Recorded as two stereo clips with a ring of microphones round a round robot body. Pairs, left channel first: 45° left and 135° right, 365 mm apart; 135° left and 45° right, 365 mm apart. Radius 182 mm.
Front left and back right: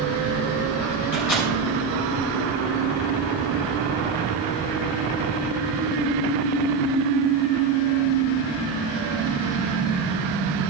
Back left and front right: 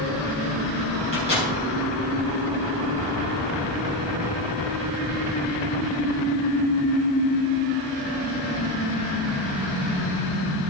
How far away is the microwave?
About 3.5 m.